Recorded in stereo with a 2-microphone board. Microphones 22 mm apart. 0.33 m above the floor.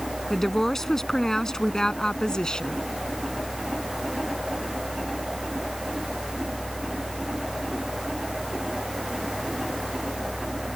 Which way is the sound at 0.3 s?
15° left (ahead or behind).